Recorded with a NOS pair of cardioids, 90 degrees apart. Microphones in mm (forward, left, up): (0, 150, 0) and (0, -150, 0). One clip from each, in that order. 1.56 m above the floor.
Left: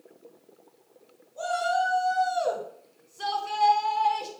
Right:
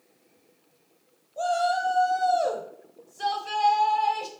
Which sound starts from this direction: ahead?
A shout, at 1.4 s.